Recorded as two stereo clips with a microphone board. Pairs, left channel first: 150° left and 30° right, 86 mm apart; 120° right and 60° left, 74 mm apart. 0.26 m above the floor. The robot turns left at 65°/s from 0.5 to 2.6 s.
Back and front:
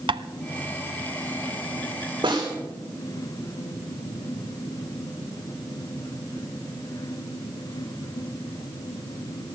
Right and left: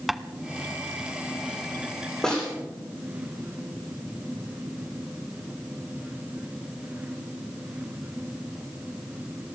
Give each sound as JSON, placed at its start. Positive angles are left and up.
{"t": 0.1, "sound": "tapping", "azimuth_deg": -25, "distance_m": 0.6}
{"t": 2.2, "sound": "a snare drum", "azimuth_deg": -35, "distance_m": 8.0}